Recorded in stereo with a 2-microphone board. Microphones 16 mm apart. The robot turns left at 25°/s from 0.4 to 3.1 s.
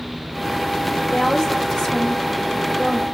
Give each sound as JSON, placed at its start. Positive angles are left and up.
{"t": 1.1, "sound": "a woman speaking", "azimuth_deg": 100, "distance_m": 1.9}